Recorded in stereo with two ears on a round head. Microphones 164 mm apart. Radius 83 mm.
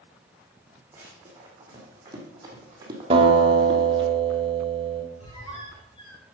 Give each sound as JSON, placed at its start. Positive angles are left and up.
{"t": 0.9, "sound": "running footsteps", "side_deg": -20, "distance_m": 3.0}
{"t": 3.1, "sound": "a guitar", "side_deg": -30, "distance_m": 1.7}
{"t": 5.2, "sound": "a squeak", "side_deg": 30, "distance_m": 4.5}